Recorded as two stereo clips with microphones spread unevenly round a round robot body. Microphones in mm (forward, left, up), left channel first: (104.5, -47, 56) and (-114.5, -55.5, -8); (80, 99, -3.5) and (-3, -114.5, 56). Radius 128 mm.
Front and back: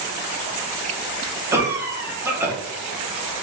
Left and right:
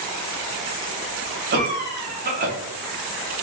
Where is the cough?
150° right, 0.8 m.